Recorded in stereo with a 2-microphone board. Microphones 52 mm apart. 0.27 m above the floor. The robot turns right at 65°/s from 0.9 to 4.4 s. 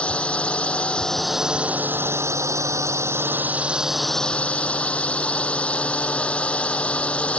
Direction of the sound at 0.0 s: 155° left.